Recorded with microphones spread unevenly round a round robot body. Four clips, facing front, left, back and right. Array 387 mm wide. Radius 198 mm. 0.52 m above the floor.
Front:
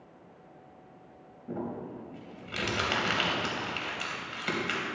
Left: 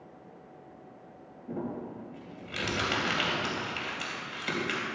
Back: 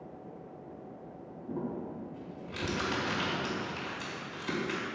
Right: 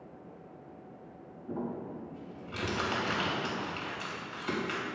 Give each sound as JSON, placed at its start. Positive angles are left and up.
{"t": 1.5, "sound": "crumpling", "azimuth_deg": 35, "distance_m": 3.5}